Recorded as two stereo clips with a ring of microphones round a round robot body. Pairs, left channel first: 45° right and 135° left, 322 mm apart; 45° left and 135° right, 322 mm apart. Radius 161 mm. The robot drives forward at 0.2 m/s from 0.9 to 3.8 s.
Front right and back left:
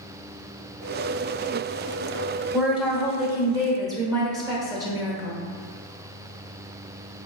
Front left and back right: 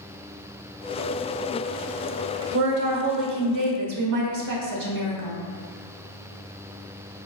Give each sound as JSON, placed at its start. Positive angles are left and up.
{"t": 2.5, "sound": "a woman speaking", "azimuth_deg": -140, "distance_m": 1.0}